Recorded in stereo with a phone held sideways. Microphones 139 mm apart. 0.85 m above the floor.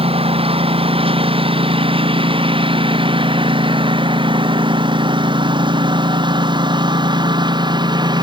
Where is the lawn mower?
40° right (ahead or behind); by 8.2 s 30° right (ahead or behind).